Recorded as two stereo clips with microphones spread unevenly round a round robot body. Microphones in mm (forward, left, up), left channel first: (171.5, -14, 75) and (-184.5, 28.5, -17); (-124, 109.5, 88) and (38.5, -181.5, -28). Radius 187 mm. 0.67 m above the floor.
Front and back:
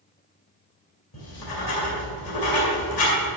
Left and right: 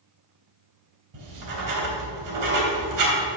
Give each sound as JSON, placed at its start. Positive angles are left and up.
{"t": 1.1, "sound": "writing", "azimuth_deg": -40, "distance_m": 2.5}